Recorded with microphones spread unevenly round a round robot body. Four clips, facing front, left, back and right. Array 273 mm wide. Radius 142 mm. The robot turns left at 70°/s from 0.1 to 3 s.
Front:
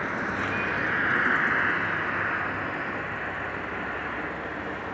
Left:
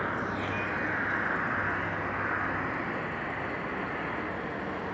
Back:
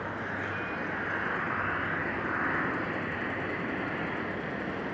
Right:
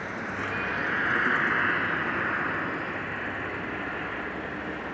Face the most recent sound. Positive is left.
turn(degrees=-170)